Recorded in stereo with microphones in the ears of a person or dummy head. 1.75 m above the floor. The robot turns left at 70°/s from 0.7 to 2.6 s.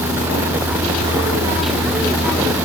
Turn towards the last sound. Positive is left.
No sound to turn to.